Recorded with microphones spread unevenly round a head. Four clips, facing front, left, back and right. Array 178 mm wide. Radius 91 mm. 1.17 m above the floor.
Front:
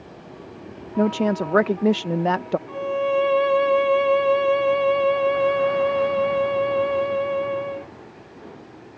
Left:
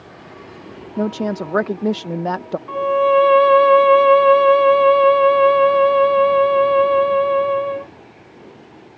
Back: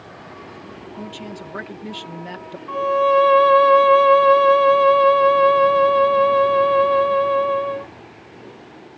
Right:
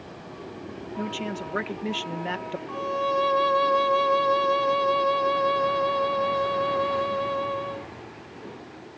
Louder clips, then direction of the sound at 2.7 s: Left 12 dB, back 9 dB; 105° left.